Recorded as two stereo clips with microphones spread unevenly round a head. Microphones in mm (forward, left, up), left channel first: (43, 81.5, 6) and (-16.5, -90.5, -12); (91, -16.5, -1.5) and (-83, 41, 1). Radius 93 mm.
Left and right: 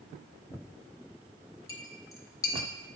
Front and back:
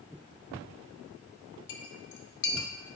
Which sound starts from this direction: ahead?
A clink, at 1.7 s.